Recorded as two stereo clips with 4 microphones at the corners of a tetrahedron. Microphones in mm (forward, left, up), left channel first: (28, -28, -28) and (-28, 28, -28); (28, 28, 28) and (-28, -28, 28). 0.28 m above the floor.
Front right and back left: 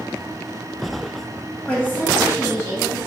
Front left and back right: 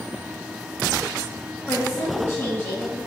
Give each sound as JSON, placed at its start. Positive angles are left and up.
{"t": 1.7, "sound": "a woman speaking", "azimuth_deg": 10, "distance_m": 1.3}